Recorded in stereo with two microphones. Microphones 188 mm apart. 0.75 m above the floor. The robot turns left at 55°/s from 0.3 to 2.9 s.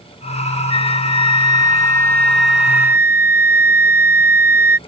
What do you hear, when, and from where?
0.7 s a flute: 25° left (ahead or behind); by 4.8 s 10° right (ahead or behind)